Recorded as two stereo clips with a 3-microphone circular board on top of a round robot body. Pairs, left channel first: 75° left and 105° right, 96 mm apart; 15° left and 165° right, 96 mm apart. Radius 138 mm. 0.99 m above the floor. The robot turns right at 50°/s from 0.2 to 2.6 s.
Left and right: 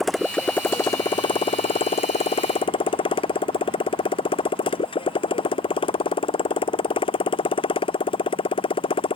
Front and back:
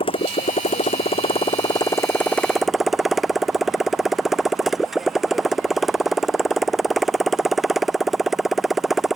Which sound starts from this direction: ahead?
A motorcycle, at 0.0 s.